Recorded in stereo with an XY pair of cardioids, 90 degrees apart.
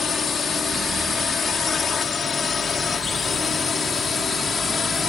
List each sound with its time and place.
0.0 s a drone: 50° left; by 5.1 s 45° left